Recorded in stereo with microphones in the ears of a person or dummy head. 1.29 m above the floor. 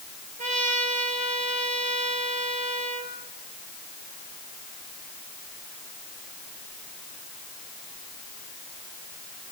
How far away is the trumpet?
About 4.5 m.